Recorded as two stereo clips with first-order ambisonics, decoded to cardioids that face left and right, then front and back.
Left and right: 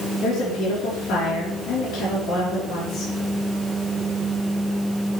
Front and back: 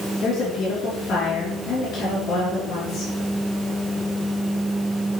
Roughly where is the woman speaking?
Ahead left.